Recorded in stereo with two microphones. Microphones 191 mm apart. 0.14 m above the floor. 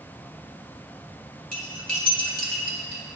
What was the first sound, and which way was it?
Cutlery clinking, 45° left (ahead or behind).